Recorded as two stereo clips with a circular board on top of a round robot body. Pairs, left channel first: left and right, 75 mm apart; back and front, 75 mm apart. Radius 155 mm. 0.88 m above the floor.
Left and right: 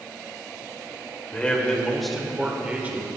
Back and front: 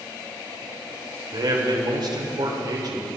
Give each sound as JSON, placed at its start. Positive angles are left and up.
{"t": 1.3, "sound": "a man speaking", "azimuth_deg": 20, "distance_m": 3.0}